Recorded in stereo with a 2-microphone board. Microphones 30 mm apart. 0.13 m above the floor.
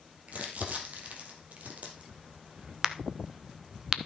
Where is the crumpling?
55° right (ahead or behind), 2.5 m.